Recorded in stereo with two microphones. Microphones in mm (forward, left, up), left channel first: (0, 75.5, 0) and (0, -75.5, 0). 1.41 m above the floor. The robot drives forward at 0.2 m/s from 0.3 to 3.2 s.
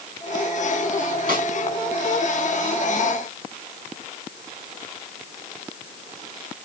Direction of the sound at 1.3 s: 75° right (ahead or behind).